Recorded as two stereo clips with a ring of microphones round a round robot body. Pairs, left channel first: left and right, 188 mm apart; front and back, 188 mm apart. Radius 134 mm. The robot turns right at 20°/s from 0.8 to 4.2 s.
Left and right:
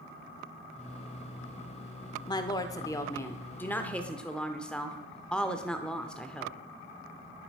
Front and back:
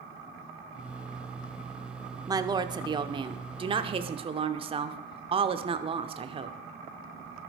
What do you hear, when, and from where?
2.3 s a woman speaking: 135° left, 0.8 m; by 6.6 s 170° left, 0.8 m